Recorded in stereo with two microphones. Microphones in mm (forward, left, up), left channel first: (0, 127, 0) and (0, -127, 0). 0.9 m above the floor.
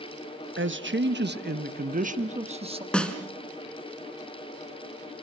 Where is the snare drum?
5° left (ahead or behind), 2.5 m.